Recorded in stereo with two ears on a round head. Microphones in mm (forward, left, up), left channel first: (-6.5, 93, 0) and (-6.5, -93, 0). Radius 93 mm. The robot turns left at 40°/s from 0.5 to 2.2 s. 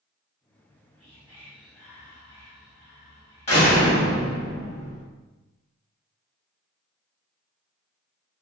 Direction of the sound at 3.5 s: 30° left (ahead or behind).